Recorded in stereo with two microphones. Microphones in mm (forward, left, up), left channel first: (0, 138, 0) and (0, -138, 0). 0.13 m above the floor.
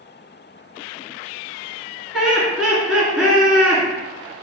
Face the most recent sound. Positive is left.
turn(degrees=-5)  # may be behind; listen again after turning